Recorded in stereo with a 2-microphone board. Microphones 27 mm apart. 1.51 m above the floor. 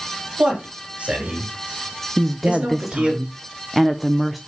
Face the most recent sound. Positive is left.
turn(degrees=0)  # may be behind; listen again after turning